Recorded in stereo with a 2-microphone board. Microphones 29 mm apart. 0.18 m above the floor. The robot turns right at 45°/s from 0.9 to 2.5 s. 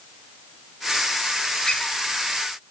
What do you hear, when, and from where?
1.6 s a squeak: 35° left (ahead or behind), 5.5 m; by 2.0 s 20° left (ahead or behind), 5.5 m